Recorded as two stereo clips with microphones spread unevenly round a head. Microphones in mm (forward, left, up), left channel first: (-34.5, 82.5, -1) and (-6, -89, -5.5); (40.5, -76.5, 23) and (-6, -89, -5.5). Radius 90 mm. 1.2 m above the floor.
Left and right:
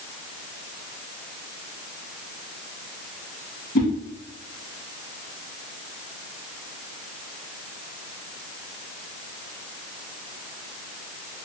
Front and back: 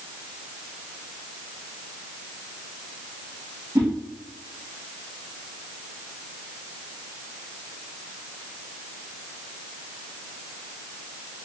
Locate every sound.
3.8 s a whoosh: 130° left, 1.4 m